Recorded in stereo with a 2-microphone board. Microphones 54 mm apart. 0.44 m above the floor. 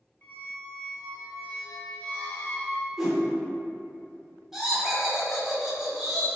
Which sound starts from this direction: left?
A squeak, at 0.2 s.